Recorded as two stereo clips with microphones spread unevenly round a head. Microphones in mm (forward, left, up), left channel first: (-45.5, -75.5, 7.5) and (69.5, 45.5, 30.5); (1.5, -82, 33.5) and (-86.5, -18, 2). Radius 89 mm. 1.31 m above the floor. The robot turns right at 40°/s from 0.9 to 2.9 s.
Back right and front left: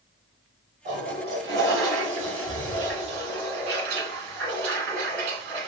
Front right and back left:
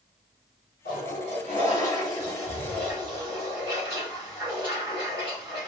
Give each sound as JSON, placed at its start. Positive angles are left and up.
{"t": 0.8, "sound": "a toilet flushing", "azimuth_deg": 0, "distance_m": 1.1}